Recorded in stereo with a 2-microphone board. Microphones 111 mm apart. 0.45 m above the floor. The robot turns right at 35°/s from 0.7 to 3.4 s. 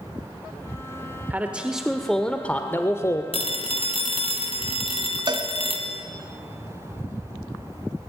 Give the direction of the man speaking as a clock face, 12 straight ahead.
1 o'clock.